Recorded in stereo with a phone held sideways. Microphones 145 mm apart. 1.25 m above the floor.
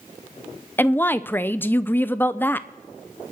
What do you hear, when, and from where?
0.8 s a woman speaking: 15° left (ahead or behind), 0.7 m